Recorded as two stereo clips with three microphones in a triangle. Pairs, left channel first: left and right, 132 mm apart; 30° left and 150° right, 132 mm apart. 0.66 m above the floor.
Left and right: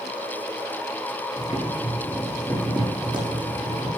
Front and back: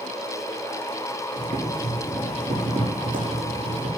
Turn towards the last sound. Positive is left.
turn(degrees=-150)